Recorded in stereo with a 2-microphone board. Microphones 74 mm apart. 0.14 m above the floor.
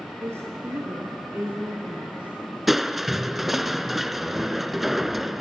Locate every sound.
0.2 s a woman speaking: 35° right (ahead or behind), 3 m; by 3.7 s 5° right (ahead or behind), 4 m
2.7 s crushing: 5° right (ahead or behind), 0.7 m